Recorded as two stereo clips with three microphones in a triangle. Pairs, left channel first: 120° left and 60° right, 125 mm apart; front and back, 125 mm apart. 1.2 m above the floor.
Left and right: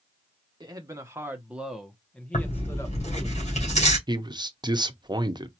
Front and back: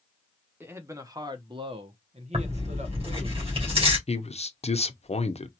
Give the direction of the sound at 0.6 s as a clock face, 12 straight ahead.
4 o'clock.